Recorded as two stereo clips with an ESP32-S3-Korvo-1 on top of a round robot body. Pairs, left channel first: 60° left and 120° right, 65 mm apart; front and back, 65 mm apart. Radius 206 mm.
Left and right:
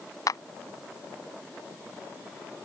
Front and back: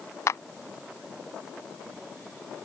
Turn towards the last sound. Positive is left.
turn(degrees=35)